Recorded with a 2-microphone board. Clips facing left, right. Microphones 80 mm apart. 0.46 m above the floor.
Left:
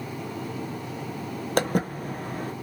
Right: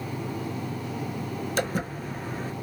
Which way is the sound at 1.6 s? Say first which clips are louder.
Left 5 dB; 55° left (ahead or behind).